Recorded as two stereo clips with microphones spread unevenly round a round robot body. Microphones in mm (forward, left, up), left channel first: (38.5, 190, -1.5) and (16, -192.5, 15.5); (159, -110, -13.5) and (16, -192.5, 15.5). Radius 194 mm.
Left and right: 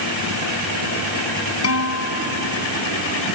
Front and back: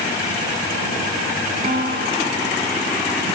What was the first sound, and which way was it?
A guitar, 140° left.